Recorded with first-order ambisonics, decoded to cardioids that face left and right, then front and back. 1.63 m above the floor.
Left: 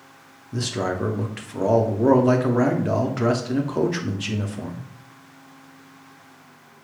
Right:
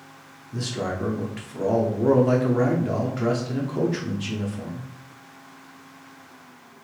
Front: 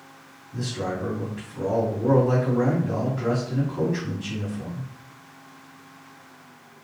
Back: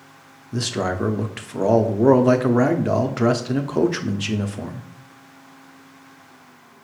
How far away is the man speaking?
About 0.5 m.